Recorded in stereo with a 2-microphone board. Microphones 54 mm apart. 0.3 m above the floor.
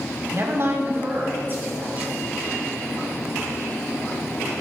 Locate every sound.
0.3 s a woman speaking: 50° right (ahead or behind), 1.3 m; by 2.1 s 30° right (ahead or behind), 3 m